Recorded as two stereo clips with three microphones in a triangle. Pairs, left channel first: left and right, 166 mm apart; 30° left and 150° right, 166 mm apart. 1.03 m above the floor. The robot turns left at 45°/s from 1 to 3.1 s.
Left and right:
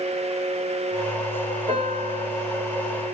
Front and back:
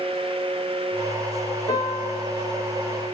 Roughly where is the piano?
Ahead right.